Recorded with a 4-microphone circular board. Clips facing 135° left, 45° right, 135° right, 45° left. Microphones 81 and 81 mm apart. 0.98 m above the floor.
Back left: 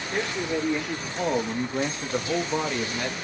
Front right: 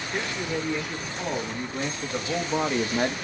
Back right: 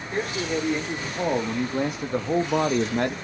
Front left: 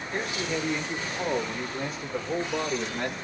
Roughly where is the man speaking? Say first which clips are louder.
Back left 3 dB, back right 4 dB; behind.